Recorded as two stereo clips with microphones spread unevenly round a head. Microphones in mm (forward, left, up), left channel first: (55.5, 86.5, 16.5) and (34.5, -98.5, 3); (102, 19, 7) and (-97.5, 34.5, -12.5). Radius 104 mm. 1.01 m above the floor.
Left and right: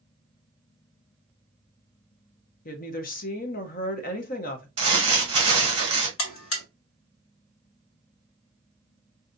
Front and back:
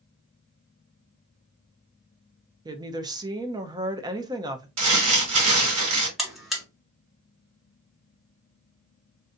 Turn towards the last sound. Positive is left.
turn(degrees=85)